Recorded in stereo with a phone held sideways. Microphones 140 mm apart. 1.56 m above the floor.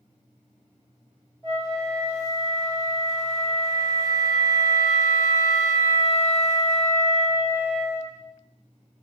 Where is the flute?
25° left (ahead or behind), 1.1 m.